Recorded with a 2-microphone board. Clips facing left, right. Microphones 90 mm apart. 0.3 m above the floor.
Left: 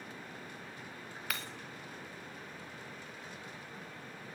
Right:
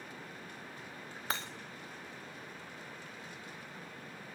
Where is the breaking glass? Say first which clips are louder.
Right 4 dB; 30° right (ahead or behind), 2 m.